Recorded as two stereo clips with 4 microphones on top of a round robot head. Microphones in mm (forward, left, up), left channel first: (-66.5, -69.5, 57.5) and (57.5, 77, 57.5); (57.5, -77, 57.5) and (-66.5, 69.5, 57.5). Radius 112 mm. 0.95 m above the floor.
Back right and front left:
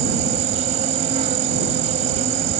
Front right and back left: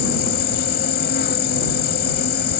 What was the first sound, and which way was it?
An insect, 5° right.